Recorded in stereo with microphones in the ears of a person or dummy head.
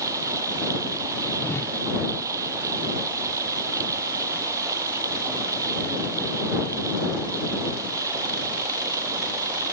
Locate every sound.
0.0 s running water: 20° right (ahead or behind)
1.4 s a whoosh: 15° left (ahead or behind)